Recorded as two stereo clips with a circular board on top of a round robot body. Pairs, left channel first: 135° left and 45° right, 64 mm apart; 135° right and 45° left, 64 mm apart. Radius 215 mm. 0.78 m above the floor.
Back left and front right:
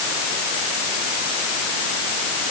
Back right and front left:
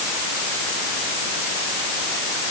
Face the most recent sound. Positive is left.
No sound to turn to.